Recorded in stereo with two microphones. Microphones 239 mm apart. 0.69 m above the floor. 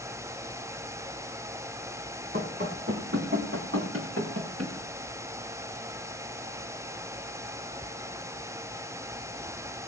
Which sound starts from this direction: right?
Running footsteps, at 2.3 s.